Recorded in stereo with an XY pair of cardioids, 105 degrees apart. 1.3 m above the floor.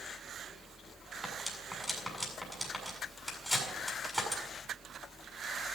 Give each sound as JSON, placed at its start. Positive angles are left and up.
{"t": 1.2, "sound": "cutlery clinking", "azimuth_deg": 5, "distance_m": 7.0}